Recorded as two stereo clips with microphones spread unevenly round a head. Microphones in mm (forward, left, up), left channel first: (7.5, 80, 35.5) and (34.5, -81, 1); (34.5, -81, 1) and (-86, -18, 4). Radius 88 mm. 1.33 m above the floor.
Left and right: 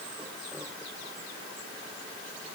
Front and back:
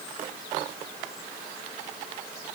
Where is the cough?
No cough in this recording.